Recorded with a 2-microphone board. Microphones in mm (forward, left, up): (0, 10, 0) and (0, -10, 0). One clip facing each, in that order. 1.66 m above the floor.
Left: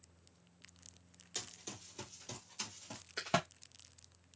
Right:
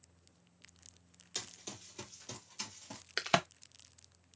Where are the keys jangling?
I don't hear keys jangling.